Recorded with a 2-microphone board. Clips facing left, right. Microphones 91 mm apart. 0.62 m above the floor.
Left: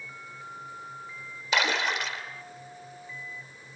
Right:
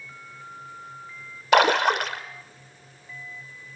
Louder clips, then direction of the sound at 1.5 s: Right 9 dB; 60° right (ahead or behind).